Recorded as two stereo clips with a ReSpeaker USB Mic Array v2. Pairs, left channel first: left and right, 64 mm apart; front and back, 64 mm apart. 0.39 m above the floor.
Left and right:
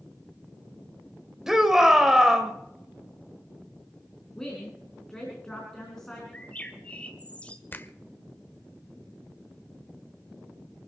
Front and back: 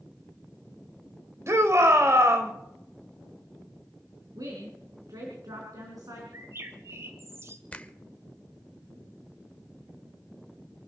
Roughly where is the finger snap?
Ahead left.